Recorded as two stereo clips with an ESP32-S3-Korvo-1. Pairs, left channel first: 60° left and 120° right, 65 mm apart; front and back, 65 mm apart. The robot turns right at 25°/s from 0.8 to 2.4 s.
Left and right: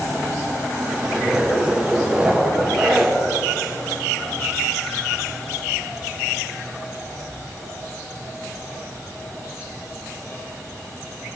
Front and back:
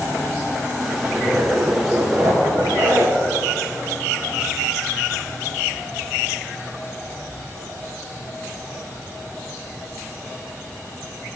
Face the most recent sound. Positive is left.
turn(degrees=160)